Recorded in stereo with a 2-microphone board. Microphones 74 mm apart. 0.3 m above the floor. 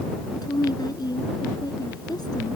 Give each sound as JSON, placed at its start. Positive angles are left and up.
{"t": 0.3, "sound": "a woman speaking", "side_deg": 70}